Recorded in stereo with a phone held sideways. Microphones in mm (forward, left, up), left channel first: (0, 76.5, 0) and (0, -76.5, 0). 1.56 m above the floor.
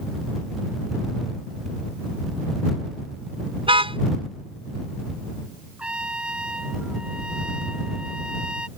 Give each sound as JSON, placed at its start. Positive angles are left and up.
{"t": 3.6, "sound": "a car horn", "side_deg": -35}
{"t": 5.8, "sound": "a trumpet", "side_deg": -5}